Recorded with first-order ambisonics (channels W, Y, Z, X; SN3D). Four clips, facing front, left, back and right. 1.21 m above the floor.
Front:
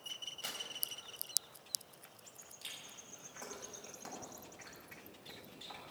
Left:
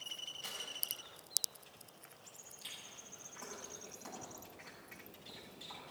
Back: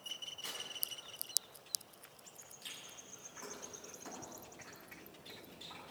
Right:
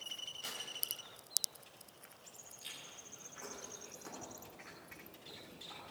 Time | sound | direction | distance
0.4 | tearing paper | 10° right | 3.5 m
2.6 | chewing | 5° left | 6.5 m